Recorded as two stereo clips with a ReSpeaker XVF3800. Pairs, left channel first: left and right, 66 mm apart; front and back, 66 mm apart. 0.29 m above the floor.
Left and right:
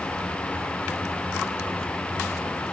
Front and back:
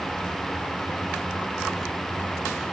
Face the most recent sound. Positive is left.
No sound to turn to.